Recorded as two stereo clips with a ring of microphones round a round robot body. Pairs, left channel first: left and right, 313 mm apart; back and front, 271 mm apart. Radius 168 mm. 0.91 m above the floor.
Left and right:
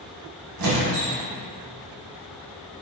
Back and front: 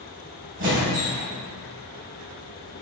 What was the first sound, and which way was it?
A squeak, 65° right.